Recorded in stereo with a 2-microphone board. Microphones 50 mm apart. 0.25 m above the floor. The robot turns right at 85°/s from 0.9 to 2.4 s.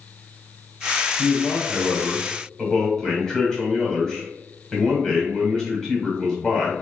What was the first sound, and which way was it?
A man speaking, 55° left.